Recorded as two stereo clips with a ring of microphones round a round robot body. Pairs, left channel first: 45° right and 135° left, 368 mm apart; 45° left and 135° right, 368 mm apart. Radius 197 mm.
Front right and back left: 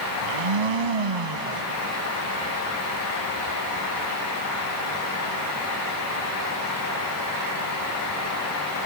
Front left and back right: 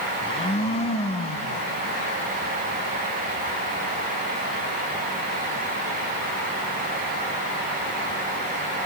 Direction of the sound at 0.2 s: 120° left.